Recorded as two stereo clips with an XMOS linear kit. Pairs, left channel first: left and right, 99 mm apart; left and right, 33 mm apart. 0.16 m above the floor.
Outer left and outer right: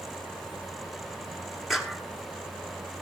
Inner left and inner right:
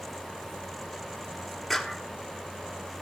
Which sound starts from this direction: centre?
A clap, at 1.7 s.